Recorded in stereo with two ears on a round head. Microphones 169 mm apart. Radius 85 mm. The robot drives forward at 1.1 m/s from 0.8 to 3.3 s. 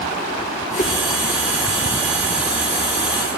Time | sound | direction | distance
0.8 | a whoosh | 40° left (ahead or behind) | 2 m